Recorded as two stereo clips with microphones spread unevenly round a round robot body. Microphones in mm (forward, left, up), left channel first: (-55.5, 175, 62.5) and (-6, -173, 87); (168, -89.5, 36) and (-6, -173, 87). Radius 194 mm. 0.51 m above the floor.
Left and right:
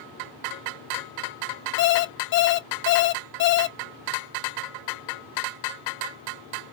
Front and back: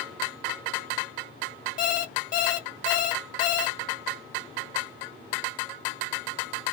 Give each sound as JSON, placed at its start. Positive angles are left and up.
{"t": 1.8, "sound": "an alarm clock", "azimuth_deg": 45, "distance_m": 0.7}